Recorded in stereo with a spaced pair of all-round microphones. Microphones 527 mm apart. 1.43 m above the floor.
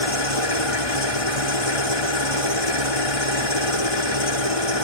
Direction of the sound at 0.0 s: 90° left.